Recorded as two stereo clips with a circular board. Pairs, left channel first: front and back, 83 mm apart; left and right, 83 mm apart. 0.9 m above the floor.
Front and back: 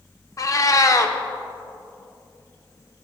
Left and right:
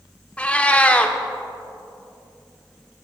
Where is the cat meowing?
25° left, 0.6 m.